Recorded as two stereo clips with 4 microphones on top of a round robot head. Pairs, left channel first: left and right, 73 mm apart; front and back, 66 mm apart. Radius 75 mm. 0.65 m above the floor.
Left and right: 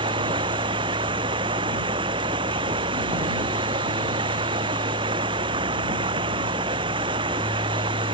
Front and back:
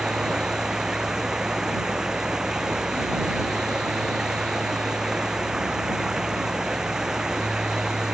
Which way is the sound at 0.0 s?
95° right.